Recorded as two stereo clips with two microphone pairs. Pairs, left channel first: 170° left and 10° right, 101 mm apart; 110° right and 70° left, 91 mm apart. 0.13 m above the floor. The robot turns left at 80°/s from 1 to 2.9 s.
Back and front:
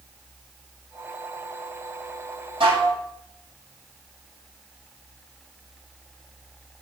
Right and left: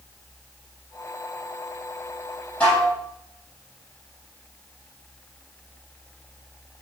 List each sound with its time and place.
2.6 s dishes clattering: 30° right, 3.5 m; by 3.0 s 55° right, 3.5 m